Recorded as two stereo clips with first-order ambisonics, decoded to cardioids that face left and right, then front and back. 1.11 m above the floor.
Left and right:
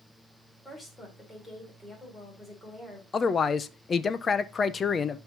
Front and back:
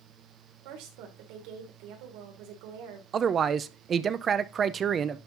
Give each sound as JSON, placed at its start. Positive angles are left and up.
{"t": 0.7, "sound": "a woman speaking", "azimuth_deg": 175, "distance_m": 3.0}
{"t": 3.1, "sound": "a man speaking", "azimuth_deg": 140, "distance_m": 0.5}